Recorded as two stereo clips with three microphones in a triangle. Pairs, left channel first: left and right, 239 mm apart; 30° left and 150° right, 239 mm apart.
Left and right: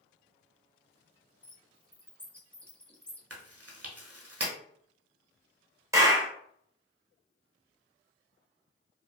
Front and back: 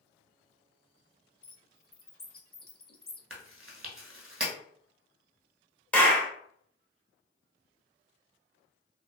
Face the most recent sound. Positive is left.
turn(degrees=-45)